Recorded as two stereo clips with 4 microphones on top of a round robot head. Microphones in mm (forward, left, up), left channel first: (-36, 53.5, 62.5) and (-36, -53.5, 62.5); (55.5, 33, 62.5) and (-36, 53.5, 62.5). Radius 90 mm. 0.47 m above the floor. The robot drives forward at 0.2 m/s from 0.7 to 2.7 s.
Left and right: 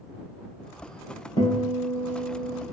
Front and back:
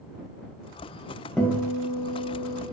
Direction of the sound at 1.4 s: 70° left.